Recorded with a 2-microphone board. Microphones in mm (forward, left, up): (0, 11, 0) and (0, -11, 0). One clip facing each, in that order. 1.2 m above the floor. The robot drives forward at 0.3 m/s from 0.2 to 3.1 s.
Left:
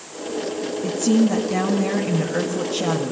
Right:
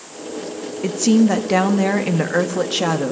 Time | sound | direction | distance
0.8 | a woman speaking | 75° right (ahead or behind) | 1.8 m